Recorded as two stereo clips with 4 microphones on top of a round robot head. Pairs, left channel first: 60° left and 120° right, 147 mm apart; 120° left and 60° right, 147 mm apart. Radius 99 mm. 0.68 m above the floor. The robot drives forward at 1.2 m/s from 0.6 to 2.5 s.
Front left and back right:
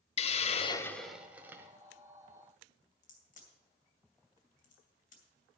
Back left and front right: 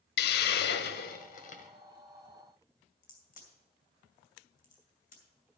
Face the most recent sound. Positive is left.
turn(degrees=90)